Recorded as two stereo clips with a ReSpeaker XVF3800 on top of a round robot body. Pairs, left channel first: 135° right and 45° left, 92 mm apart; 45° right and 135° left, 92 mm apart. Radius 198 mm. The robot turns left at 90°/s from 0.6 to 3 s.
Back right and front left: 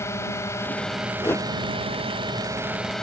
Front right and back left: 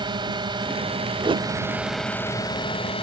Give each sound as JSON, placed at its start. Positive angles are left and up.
{"t": 0.0, "sound": "a drone", "azimuth_deg": 165}
{"t": 1.2, "sound": "a whoosh", "azimuth_deg": 170}